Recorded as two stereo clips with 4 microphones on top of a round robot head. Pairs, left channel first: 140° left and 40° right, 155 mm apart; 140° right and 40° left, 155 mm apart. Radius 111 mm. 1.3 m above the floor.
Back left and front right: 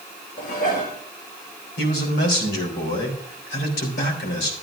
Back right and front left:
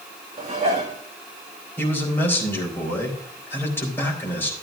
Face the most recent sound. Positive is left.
turn(degrees=145)